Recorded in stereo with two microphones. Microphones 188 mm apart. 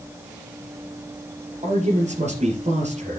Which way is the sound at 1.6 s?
35° right (ahead or behind).